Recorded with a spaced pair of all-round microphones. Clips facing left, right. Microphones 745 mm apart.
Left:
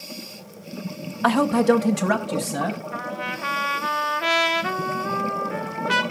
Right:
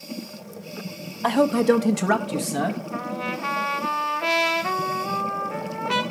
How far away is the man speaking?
About 0.5 m.